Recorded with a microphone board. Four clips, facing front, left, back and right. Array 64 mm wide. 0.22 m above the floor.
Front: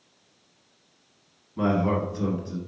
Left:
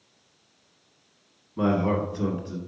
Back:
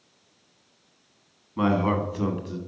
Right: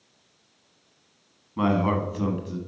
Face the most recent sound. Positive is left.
turn(degrees=-160)